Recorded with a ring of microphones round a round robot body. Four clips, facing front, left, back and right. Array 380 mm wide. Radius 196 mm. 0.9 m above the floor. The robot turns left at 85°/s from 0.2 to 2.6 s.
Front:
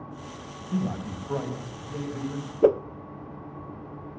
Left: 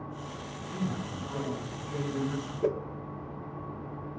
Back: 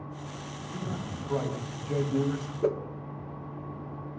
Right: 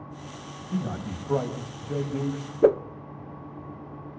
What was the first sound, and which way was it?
A man speaking, 30° right.